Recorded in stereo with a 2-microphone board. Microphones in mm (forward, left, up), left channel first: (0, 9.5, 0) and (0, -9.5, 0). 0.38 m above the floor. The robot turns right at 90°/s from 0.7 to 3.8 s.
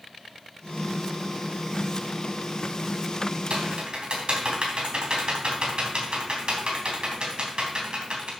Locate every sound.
3.5 s typing on a keyboard: 70° right (ahead or behind), 3 m; by 8.3 s 60° right (ahead or behind), 3 m